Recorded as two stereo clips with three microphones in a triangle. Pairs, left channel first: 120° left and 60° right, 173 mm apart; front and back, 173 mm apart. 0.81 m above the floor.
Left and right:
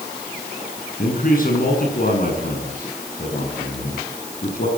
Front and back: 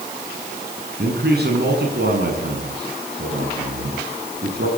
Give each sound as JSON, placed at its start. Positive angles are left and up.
{"t": 1.0, "sound": "a man speaking", "azimuth_deg": 155, "distance_m": 7.5}